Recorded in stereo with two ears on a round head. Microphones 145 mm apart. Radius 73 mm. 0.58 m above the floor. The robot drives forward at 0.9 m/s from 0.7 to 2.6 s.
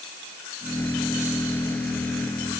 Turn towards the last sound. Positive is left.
No sound to turn to.